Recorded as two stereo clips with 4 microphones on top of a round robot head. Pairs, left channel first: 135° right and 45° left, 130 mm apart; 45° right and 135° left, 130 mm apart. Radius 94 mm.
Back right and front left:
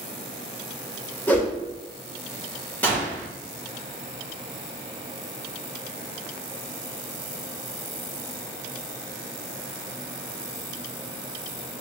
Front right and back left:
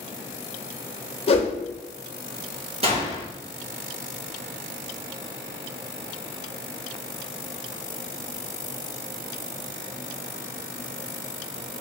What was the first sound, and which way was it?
A whoosh, 65° right.